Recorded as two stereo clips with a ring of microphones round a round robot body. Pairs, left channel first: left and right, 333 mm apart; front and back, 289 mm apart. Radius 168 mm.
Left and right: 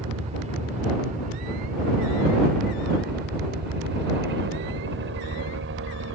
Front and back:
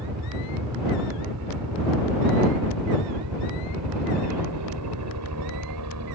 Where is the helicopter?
160° right; by 6.2 s 140° right.